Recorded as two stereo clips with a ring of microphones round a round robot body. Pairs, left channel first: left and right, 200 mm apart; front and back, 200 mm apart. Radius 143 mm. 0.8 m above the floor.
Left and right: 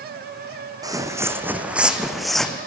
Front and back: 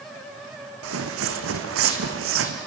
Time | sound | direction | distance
0.8 | footsteps | 160° right | 2.5 m